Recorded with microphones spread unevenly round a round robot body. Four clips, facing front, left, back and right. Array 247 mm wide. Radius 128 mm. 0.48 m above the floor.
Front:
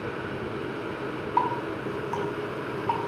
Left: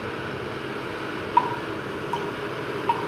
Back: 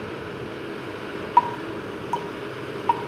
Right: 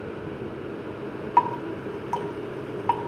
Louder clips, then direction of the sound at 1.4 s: Right 1 dB, back 6 dB; 130° right.